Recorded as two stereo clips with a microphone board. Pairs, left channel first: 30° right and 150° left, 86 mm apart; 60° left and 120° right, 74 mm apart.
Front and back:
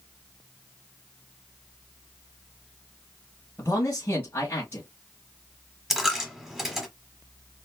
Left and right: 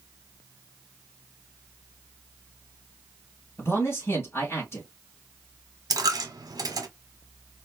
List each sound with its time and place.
3.6 s a man speaking: 20° left, 2 m
5.9 s a dropped coin: 125° right, 1.1 m